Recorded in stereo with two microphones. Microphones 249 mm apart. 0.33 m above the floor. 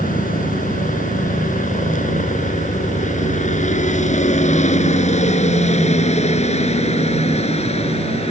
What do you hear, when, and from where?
0.0 s a helicopter: 35° left (ahead or behind); by 8.3 s 25° left (ahead or behind)